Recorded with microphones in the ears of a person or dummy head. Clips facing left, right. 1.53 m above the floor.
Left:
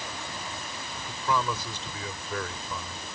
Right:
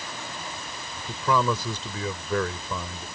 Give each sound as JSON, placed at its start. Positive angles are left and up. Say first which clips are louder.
{"t": 1.1, "sound": "a man speaking", "louder": "right 5 dB", "side_deg": -80}